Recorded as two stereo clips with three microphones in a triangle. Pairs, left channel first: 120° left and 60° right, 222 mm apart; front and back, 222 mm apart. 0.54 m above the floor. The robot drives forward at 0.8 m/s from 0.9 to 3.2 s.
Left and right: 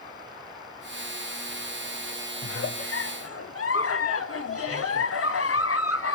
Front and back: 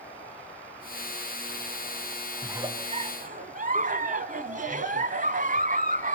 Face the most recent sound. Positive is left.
turn(degrees=130)